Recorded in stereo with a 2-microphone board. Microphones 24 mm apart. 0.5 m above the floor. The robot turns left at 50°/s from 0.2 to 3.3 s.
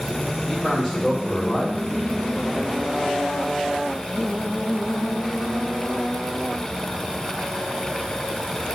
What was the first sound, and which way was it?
A man speaking, 170° right.